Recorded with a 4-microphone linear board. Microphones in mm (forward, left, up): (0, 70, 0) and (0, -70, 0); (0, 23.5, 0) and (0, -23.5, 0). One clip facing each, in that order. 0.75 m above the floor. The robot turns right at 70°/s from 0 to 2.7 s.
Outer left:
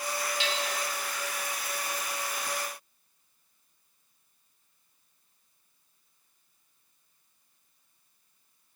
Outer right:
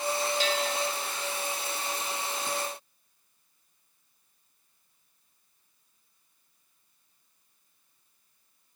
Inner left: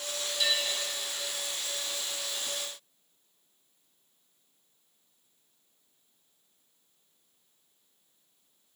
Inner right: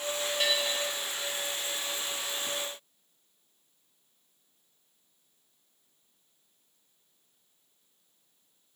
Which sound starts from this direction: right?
A bell, at 0.4 s.